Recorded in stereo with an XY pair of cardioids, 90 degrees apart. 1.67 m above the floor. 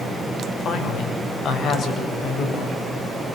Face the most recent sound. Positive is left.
turn(degrees=70)